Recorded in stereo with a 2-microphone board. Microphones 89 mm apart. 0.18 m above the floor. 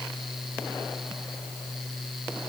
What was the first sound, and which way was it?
Only background noise.